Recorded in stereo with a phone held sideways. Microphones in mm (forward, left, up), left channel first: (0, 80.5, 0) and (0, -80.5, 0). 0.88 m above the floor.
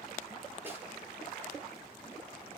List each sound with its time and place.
0.7 s a snare drum: 15° right (ahead or behind), 6.5 m